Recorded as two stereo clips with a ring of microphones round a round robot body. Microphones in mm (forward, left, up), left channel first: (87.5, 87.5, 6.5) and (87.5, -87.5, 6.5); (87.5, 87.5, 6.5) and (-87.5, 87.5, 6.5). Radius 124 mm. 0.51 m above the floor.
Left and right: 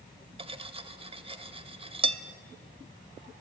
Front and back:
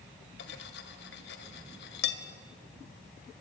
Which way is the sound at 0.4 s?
35° right.